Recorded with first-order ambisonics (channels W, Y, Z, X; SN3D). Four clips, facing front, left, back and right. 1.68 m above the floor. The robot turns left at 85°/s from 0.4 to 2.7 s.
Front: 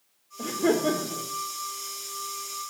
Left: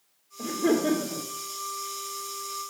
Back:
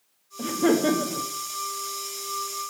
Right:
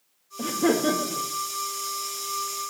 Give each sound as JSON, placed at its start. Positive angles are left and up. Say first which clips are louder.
{"t": 0.4, "sound": "laughter", "louder": "right 2 dB, back 2 dB", "azimuth_deg": -120, "distance_m": 1.1}